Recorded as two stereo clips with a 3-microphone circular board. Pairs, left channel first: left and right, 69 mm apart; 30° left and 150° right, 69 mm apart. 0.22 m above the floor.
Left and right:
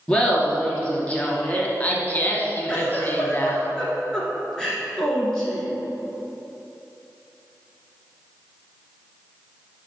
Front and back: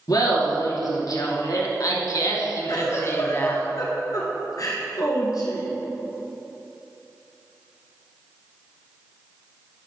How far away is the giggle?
About 2.0 m.